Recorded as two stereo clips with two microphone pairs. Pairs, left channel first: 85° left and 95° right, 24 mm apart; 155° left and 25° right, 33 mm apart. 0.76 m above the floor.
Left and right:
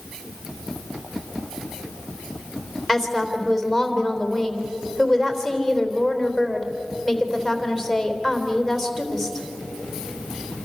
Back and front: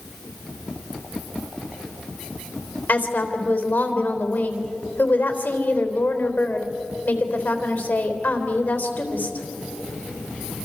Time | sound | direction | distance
2.9 | a woman speaking | 175° right | 3.5 m